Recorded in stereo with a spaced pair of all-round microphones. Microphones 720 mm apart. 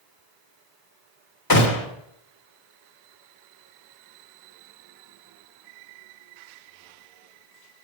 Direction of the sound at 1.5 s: 30° left (ahead or behind).